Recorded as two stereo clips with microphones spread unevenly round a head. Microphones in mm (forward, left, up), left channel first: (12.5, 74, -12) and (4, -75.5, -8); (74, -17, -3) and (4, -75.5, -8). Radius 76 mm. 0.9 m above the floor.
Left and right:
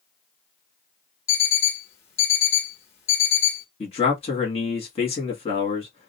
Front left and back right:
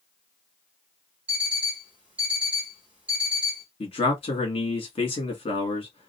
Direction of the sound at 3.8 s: 45° left.